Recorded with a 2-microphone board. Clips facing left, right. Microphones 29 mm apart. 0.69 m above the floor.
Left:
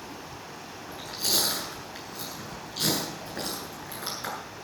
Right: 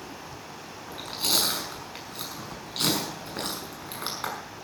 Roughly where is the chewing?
Right.